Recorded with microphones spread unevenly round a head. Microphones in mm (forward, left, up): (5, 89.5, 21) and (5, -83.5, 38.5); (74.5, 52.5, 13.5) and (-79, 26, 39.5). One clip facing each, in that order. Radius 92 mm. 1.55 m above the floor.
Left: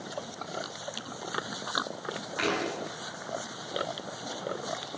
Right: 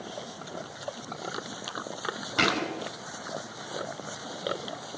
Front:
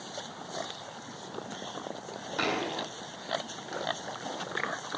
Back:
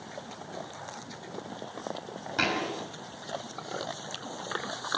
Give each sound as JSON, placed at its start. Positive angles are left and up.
{"t": 2.4, "sound": "a thud", "azimuth_deg": -95, "distance_m": 6.0}